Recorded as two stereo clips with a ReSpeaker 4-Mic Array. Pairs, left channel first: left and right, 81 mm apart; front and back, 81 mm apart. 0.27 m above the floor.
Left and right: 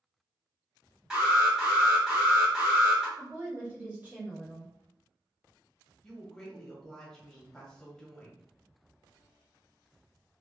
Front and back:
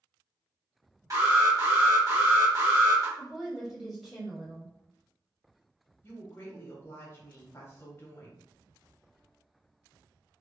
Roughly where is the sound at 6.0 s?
Ahead.